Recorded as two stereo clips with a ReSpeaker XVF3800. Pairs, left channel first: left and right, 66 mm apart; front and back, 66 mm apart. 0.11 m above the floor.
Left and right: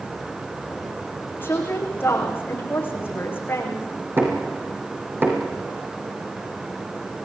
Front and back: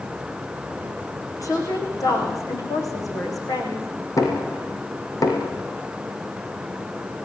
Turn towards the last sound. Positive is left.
turn(degrees=-35)